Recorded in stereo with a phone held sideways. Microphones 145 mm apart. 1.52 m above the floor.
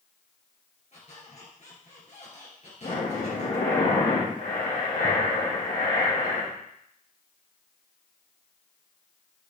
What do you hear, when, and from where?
0.9 s a squeak: 55° left (ahead or behind), 2.5 m
2.8 s breathing: 65° left (ahead or behind), 1.9 m